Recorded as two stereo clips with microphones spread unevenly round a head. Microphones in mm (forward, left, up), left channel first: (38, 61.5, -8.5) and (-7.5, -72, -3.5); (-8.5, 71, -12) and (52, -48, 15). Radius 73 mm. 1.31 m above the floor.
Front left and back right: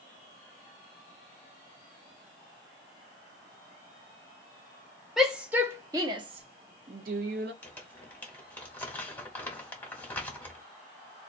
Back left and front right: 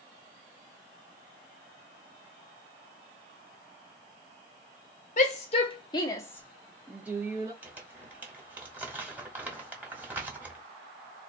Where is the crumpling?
5° right, 1.3 m.